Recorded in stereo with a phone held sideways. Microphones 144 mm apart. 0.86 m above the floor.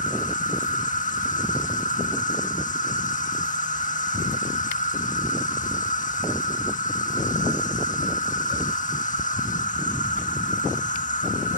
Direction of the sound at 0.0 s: 60° left (ahead or behind).